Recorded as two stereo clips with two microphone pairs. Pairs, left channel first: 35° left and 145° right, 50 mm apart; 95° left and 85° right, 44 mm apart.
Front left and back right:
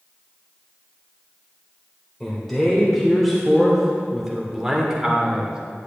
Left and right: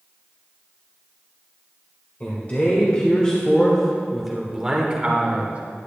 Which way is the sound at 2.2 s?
110° left.